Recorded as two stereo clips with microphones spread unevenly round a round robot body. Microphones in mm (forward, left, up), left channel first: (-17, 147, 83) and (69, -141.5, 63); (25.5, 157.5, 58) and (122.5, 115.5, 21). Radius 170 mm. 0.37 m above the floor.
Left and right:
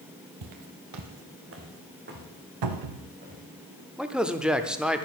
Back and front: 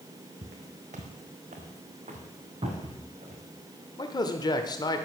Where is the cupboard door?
85° right, 0.9 m.